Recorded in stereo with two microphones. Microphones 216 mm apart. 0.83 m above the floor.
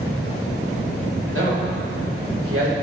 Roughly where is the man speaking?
Right.